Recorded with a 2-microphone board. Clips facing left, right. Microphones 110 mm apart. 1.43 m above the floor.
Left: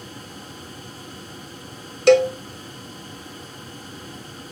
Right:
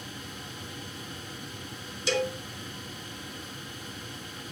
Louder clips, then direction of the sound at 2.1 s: Left 15 dB; 65° left (ahead or behind).